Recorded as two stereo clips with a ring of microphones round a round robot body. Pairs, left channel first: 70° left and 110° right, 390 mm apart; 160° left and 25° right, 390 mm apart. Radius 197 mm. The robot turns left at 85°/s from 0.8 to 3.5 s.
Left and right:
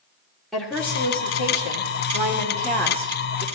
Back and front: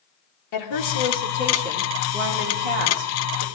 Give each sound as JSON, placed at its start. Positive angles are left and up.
{"t": 0.5, "sound": "a woman speaking", "azimuth_deg": 155, "distance_m": 2.5}